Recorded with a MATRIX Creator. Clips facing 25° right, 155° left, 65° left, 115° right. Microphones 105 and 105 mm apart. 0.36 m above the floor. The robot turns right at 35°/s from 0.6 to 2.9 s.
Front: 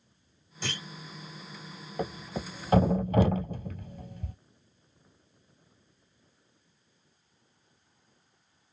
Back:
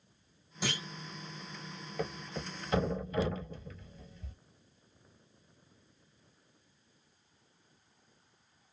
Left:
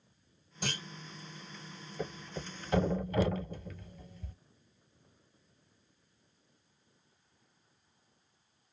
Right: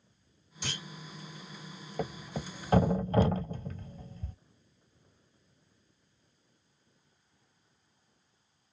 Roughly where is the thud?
Right.